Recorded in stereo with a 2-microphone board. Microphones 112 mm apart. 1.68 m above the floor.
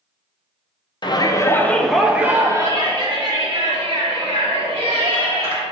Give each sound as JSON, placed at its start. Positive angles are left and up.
{"t": 1.0, "sound": "a shout", "side_deg": 45, "distance_m": 0.7}